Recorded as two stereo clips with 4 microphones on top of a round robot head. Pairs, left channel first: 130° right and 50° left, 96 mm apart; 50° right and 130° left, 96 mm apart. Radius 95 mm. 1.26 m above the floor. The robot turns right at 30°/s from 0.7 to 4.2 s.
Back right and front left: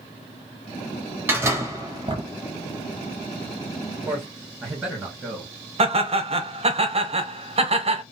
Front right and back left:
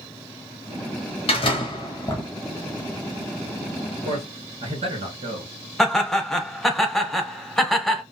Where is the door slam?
15° right, 0.7 m; by 2.3 s 15° left, 0.7 m.